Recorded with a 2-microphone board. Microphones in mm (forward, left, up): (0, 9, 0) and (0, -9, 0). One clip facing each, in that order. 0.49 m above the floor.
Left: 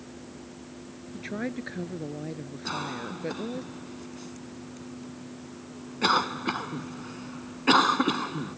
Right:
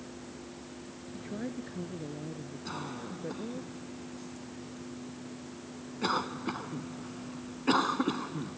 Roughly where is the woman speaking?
Left.